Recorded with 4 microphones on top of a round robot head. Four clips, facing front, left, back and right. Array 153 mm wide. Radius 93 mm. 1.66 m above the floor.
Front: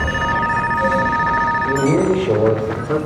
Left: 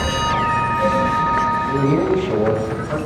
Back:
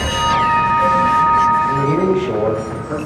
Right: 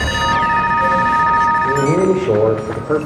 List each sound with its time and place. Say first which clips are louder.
1.6 s a man speaking: right 3 dB, even; 65° right, 6.5 m